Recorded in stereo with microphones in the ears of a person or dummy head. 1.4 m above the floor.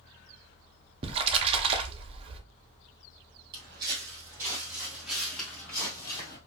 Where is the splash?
35° right (ahead or behind), 0.6 m.